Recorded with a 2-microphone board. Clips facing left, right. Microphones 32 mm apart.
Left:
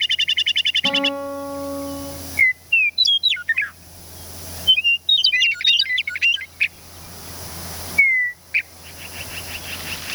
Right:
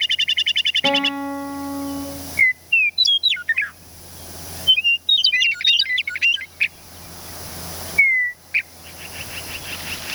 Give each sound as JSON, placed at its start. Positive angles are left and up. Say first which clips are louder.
{"t": 0.8, "sound": "a guitar", "louder": "right 1 dB", "side_deg": -70, "distance_m": 5.0}